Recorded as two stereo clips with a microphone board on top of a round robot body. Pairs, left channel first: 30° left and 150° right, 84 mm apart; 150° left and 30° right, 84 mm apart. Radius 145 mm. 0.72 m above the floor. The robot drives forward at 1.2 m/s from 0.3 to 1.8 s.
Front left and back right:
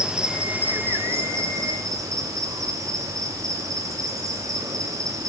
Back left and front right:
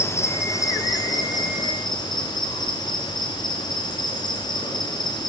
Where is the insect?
140° left, 1.9 m; by 5.3 s 165° left, 3 m.